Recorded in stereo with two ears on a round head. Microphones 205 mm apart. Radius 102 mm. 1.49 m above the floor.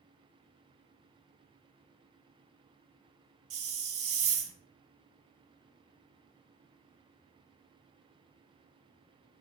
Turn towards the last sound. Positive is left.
turn(degrees=-65)  # may be behind; listen again after turning